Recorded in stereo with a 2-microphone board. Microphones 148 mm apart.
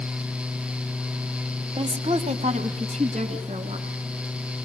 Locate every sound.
1.8 s a woman speaking: 40° right (ahead or behind), 1.3 m; by 3.9 s 50° right (ahead or behind), 4 m